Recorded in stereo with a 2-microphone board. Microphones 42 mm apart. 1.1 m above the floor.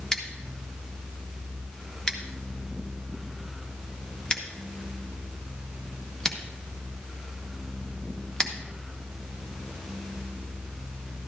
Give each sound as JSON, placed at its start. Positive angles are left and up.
{"t": 0.1, "sound": "scissors", "side_deg": 20, "distance_m": 1.1}